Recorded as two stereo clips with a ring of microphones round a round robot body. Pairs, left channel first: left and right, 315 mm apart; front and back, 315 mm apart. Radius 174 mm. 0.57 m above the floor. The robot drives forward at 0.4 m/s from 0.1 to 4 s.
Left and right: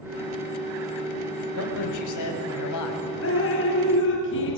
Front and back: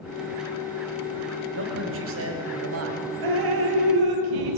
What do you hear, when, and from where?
1.6 s a man speaking: 125° left, 4 m; by 3.1 s 130° left, 4.5 m
3.2 s dripping: 145° left, 3 m; by 4.6 s 150° left, 3.5 m